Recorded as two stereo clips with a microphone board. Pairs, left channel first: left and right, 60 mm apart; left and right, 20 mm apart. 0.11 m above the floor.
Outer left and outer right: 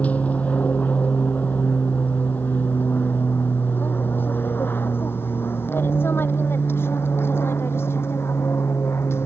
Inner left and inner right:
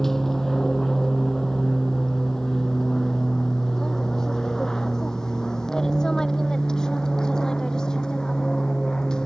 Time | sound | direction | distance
0.0 | an aircraft | 20° left (ahead or behind) | ?